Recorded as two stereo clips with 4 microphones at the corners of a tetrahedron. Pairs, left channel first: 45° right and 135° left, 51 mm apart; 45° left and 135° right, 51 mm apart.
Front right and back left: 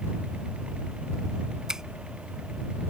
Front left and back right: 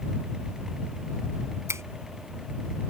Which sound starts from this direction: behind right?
A finger snap, at 1.7 s.